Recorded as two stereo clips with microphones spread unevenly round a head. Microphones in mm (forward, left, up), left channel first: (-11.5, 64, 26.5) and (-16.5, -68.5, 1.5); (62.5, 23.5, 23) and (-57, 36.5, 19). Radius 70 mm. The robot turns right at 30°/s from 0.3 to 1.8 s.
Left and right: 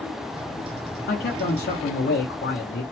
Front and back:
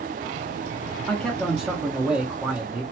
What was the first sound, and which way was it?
A man speaking, 75° left.